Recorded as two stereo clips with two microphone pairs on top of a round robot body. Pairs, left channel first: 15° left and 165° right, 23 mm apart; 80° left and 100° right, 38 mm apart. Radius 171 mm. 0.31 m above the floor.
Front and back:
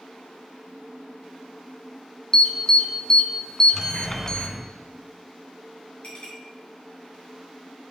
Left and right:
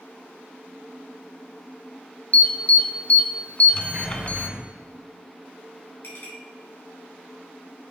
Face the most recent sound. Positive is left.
turn(degrees=60)